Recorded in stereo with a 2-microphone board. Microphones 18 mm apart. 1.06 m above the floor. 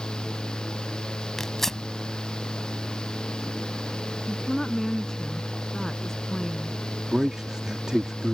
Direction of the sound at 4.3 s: 25° left (ahead or behind).